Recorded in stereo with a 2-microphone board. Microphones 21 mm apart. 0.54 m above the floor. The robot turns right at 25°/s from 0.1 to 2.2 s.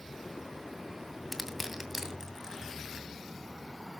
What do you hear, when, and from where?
1.3 s crushing: 5° right (ahead or behind), 2 m; by 3.1 s 25° right (ahead or behind), 2 m